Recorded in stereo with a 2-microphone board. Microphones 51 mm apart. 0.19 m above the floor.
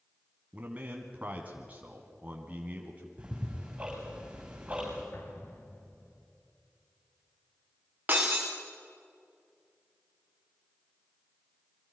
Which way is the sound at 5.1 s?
60° left (ahead or behind).